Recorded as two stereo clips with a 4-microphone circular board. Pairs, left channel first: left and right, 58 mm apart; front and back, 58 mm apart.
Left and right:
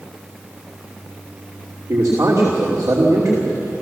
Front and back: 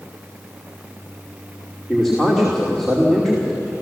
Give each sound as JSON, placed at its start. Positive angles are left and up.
{"t": 1.9, "sound": "a man speaking", "azimuth_deg": -85, "distance_m": 3.0}